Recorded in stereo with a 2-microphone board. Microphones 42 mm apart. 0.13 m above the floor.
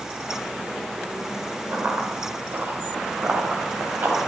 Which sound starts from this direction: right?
Running footsteps, at 1.7 s.